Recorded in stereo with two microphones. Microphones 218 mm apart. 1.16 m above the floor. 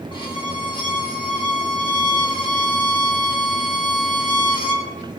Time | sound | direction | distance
0.1 | a violin | 20° left (ahead or behind) | 2 m